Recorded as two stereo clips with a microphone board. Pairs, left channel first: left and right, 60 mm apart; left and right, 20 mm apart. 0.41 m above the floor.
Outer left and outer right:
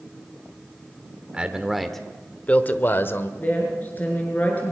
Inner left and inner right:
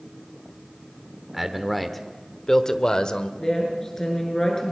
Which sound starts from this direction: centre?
A man speaking, at 1.3 s.